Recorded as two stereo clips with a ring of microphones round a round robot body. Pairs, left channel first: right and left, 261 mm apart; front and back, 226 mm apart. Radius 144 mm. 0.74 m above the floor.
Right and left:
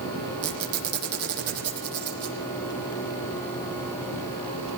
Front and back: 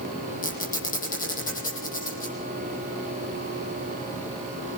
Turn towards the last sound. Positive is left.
turn(degrees=55)